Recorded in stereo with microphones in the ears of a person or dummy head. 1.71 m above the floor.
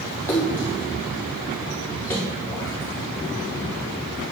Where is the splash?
10° left (ahead or behind), 0.9 m.